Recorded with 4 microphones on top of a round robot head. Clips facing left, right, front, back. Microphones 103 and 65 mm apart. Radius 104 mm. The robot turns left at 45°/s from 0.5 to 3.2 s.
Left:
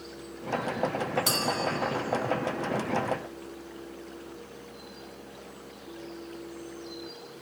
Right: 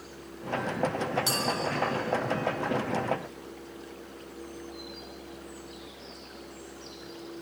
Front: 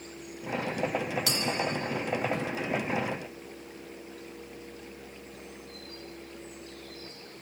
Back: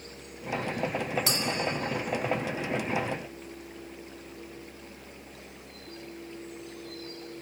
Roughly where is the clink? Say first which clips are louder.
Left 1 dB, back 1 dB; behind left.